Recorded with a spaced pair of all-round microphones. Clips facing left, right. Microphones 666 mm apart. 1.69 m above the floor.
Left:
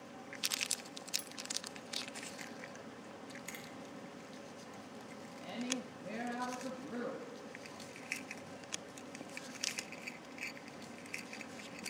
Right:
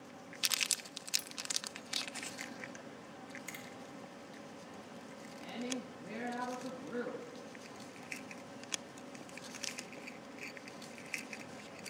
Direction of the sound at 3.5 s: 20° right (ahead or behind).